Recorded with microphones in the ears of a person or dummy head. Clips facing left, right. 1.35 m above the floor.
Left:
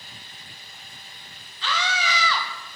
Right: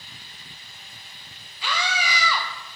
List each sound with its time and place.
1.6 s a scream: 10° right (ahead or behind), 1.3 m